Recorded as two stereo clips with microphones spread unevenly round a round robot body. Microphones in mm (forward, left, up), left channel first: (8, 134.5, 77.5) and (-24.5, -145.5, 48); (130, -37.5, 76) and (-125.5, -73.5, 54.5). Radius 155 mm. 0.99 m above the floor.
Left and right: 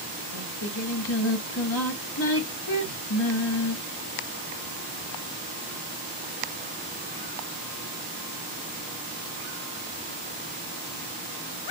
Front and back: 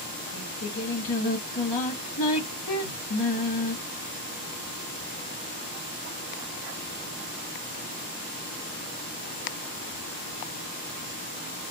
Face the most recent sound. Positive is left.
turn(degrees=40)